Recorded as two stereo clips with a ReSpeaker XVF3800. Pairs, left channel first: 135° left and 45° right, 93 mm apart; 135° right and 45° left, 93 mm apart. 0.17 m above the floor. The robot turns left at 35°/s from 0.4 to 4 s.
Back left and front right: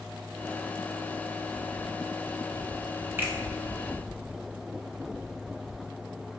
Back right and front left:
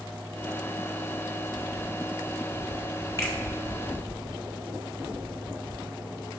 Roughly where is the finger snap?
Right.